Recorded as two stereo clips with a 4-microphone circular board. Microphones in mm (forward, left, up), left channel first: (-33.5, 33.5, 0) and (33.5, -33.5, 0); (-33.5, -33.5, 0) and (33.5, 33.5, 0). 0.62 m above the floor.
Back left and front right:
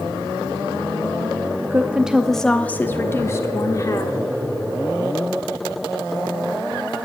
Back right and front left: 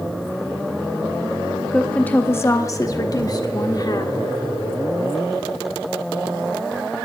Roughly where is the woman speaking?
Ahead right.